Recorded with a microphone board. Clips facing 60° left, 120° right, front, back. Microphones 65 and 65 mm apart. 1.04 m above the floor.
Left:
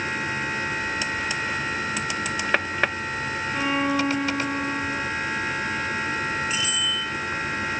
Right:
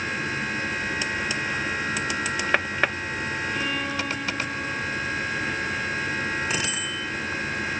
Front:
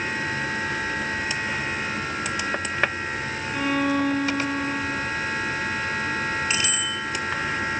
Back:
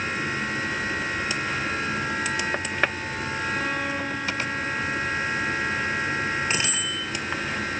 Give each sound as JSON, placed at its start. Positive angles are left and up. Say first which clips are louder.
{"t": 3.5, "sound": "a violin", "louder": "left 4 dB, front 8 dB", "azimuth_deg": 5, "distance_m": 7.5}
{"t": 6.5, "sound": "a bicycle bell", "louder": "left 1 dB, front 1 dB", "azimuth_deg": -120, "distance_m": 7.5}